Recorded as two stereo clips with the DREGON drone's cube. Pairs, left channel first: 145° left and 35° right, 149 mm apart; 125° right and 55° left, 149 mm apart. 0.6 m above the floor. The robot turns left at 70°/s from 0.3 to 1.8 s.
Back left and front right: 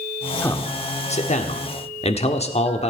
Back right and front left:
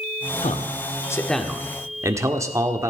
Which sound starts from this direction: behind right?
A man speaking, at 0.4 s.